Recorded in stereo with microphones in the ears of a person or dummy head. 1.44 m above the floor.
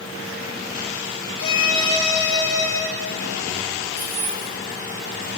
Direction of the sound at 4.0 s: 10° right (ahead or behind).